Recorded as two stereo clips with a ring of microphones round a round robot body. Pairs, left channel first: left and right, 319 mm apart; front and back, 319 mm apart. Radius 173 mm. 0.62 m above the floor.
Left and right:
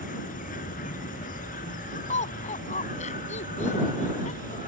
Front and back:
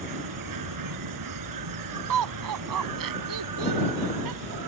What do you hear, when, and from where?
0.0 s an insect: 160° left
2.1 s laughter: 160° left